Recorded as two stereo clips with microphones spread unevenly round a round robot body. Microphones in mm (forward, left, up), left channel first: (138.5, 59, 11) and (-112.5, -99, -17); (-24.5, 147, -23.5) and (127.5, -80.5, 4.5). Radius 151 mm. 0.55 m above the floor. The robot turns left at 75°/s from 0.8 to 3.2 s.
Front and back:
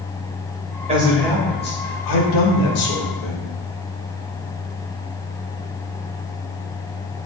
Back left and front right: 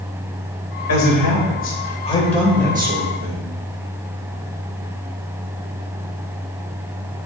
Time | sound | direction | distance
0.9 | a man speaking | 145° left | 2.5 m